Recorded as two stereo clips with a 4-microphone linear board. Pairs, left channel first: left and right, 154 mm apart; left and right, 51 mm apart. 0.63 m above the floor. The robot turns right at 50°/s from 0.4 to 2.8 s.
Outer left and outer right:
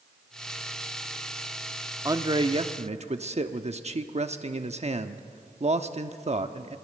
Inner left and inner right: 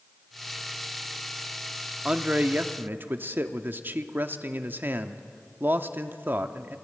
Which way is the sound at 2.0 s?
150° right.